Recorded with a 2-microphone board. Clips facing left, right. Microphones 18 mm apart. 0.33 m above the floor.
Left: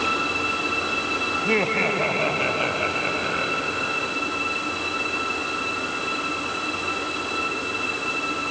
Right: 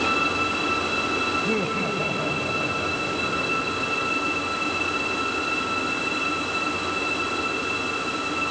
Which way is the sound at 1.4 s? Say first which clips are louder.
Left 3 dB; 75° left (ahead or behind).